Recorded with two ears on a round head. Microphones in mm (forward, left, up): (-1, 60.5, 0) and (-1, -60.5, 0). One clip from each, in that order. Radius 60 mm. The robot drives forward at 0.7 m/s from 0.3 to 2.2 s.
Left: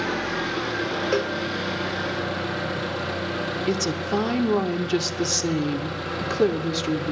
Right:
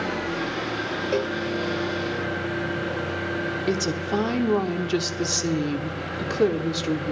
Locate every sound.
0.0 s an engine running: 50° left (ahead or behind), 6.5 m; by 7.1 s 60° left (ahead or behind), 5.5 m
1.1 s a cowbell: 30° left (ahead or behind), 1.1 m; by 1.4 s 35° left (ahead or behind), 1.0 m
3.7 s a woman speaking: 5° left (ahead or behind), 0.9 m